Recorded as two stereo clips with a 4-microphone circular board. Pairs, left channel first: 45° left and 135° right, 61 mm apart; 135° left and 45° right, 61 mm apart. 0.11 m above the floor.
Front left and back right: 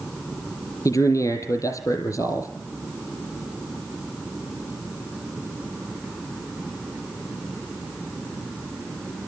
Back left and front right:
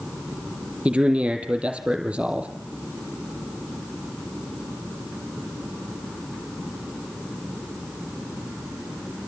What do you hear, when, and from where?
0.8 s a man speaking: 30° left, 3 m